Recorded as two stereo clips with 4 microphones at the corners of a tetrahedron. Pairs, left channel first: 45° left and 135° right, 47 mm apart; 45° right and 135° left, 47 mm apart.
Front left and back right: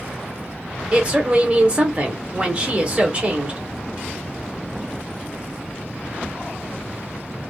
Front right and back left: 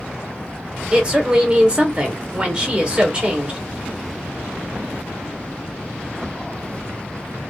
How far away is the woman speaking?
About 1.0 m.